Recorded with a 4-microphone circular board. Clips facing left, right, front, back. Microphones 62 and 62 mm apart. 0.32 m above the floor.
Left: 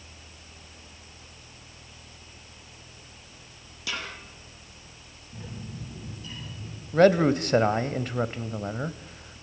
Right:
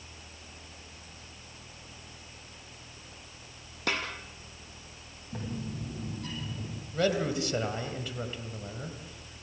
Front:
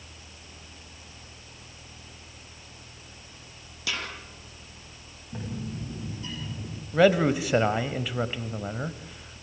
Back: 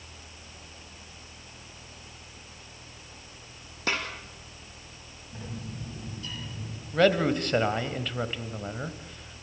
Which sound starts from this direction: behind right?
A snare drum, at 3.9 s.